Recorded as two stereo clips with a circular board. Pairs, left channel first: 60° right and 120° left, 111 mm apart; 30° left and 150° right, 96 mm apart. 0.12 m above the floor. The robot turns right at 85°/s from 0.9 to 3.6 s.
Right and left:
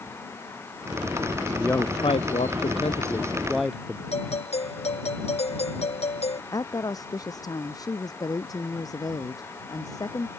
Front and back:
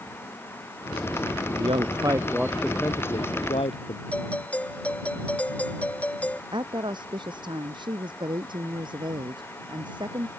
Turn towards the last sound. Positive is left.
turn(degrees=-115)